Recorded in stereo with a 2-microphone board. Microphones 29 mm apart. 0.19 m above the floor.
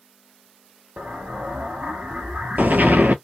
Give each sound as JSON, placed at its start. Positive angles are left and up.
{"t": 1.0, "sound": "an explosion", "side_deg": -75, "distance_m": 0.6}